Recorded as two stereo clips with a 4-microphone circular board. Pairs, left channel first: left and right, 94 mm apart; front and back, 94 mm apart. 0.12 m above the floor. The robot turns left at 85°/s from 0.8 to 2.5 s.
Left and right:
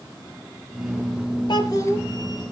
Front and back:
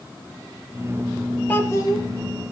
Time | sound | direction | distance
1.5 | a child speaking | 70° left | 2.5 m